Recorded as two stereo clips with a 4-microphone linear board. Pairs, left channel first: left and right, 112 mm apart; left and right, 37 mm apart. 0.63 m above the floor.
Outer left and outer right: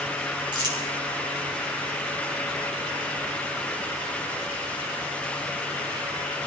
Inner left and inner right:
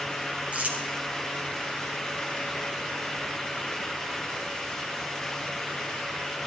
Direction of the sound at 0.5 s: 45° right (ahead or behind).